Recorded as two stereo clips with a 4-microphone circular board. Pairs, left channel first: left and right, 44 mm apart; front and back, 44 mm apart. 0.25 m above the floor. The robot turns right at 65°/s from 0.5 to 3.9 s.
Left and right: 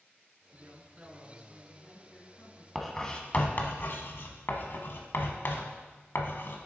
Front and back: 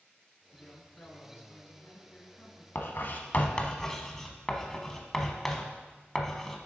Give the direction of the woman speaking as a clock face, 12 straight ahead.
2 o'clock.